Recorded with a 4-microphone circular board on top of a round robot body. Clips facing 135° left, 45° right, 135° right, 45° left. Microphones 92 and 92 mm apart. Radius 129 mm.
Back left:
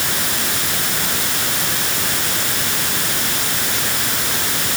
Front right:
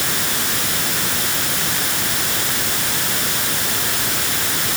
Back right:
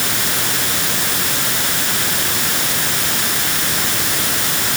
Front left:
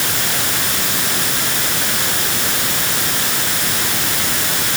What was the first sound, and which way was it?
Only background noise.